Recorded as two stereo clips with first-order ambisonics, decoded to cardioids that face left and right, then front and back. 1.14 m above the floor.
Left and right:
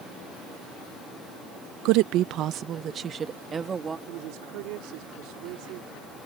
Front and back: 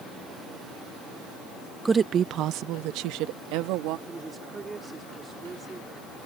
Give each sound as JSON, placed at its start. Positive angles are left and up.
{"t": 1.9, "sound": "a woman speaking", "azimuth_deg": -100}
{"t": 4.1, "sound": "a woman speaking", "azimuth_deg": -105}